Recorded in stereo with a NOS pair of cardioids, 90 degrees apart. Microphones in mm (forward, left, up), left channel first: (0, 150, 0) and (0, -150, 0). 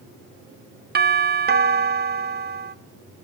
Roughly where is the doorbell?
Ahead right.